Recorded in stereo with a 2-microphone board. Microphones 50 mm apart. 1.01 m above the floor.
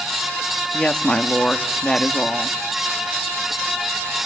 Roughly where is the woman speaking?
Centre.